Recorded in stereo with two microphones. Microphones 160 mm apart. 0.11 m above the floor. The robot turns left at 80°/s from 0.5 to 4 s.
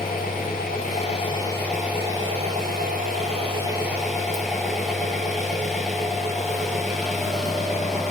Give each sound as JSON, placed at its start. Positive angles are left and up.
{"t": 0.0, "sound": "an engine running", "azimuth_deg": 100, "distance_m": 0.7}